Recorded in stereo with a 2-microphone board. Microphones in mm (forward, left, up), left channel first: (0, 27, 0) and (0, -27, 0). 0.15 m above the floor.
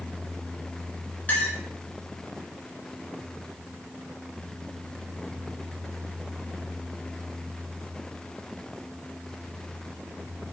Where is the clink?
35° left (ahead or behind), 1.4 m.